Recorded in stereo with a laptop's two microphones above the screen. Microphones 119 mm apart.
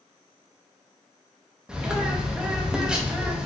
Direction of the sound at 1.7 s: 5° right (ahead or behind).